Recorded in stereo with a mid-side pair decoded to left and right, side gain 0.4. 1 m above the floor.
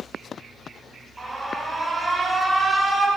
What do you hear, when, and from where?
1.2 s an alarm: 25° right, 7 m